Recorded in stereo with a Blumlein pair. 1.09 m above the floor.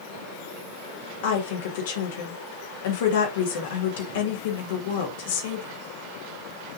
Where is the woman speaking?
55° left, 2.5 m.